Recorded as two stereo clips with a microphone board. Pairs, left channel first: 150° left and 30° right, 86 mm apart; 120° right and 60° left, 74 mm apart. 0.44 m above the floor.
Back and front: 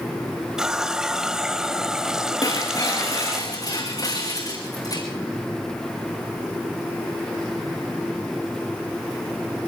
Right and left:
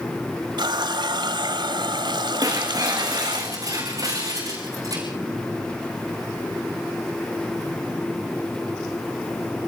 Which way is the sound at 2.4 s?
100° left.